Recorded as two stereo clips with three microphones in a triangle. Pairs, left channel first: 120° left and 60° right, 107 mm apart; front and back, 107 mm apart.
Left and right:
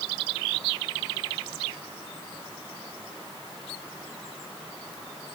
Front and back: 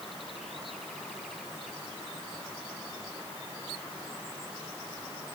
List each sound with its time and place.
Only background noise.